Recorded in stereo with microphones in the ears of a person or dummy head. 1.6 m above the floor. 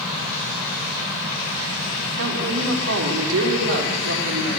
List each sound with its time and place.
2.2 s a woman speaking: 80° right, 4.5 m